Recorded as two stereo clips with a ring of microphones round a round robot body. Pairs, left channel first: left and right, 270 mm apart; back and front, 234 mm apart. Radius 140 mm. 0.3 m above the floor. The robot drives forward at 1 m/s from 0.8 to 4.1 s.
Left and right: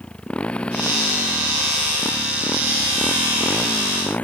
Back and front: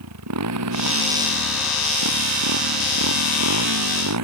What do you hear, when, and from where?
0.0 s a motorcycle: 5° left